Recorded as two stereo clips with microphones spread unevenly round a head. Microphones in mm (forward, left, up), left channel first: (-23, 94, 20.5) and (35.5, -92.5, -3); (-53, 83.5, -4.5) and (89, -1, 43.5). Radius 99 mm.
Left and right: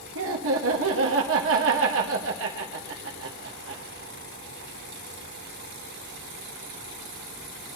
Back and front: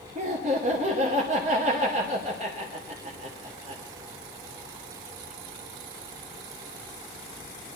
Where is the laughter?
90° right, 1.5 m.